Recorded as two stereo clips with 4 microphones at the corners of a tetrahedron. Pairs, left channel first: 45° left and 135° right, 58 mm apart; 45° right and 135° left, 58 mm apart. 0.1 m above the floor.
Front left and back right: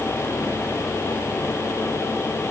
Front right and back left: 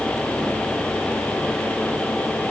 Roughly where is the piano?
I don't hear a piano.